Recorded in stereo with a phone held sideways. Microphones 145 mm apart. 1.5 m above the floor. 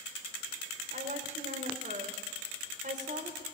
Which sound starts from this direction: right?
A woman speaking, at 0.9 s.